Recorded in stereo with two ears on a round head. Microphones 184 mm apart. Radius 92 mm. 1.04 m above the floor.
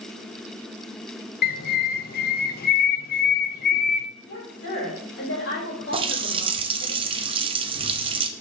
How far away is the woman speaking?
About 4 m.